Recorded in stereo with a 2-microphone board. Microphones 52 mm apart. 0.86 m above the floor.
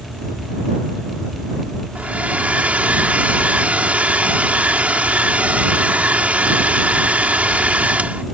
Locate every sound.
1.9 s a hair dryer: 30° right (ahead or behind)